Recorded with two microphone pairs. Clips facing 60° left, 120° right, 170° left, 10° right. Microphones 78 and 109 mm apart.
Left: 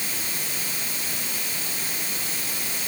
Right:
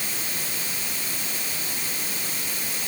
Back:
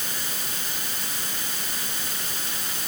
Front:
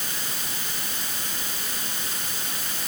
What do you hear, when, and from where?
Only background noise.